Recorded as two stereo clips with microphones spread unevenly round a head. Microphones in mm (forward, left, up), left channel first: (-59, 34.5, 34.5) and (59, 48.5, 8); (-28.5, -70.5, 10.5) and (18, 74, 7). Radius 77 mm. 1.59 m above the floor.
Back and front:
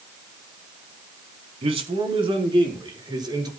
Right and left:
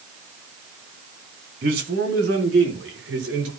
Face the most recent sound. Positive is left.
turn(degrees=60)